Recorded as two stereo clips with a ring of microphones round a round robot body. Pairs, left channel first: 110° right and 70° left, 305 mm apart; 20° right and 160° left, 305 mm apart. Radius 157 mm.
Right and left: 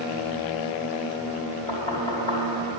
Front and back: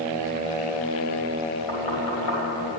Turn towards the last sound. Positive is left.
turn(degrees=-40)